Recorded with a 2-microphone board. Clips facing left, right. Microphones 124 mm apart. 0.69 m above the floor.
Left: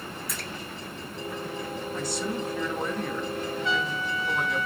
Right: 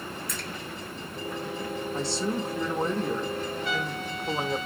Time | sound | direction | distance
0.3 | a splash | 5° left (ahead or behind) | 1.2 m
1.9 | a man speaking | 30° right (ahead or behind) | 0.5 m
3.6 | a trumpet | 85° left | 2 m